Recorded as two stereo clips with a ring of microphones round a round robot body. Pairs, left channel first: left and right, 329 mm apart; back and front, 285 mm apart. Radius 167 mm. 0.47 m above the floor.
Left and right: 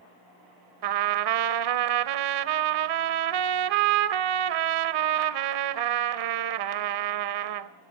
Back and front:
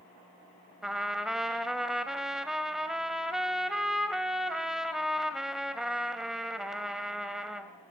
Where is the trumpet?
90° right, 1.2 m.